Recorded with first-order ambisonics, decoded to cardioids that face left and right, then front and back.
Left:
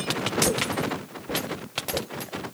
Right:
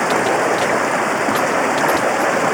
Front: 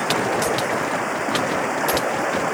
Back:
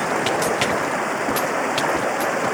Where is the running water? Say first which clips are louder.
Right 10 dB, even; 95° right.